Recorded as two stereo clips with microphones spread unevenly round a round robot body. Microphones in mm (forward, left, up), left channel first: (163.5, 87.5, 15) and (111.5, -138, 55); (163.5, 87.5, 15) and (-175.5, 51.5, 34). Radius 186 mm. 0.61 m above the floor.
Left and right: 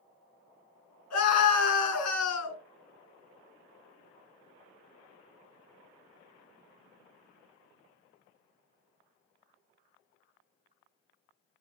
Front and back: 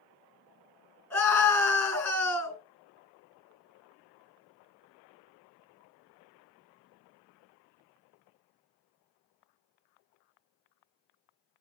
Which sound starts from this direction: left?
A scream, at 1.1 s.